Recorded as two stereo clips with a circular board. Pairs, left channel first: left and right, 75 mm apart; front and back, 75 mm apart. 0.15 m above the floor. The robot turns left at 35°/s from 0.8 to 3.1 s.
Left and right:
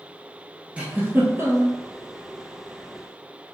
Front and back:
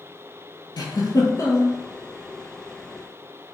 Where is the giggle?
15° right, 0.9 m; by 1.8 s 50° right, 0.9 m.